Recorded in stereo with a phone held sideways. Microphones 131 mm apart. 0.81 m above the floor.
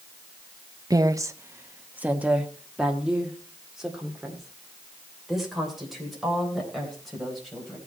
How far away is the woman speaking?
About 0.5 m.